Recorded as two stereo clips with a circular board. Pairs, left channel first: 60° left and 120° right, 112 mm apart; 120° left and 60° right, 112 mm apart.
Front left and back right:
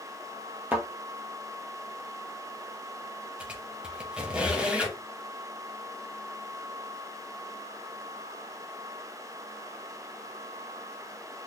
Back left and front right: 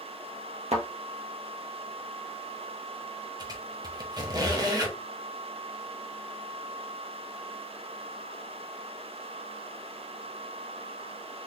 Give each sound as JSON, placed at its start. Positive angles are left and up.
{"t": 0.7, "sound": "a thud", "azimuth_deg": -45, "distance_m": 1.6}
{"t": 3.4, "sound": "a squeak", "azimuth_deg": -45, "distance_m": 1.2}